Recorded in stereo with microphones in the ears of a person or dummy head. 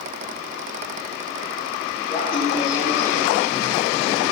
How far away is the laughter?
About 3 m.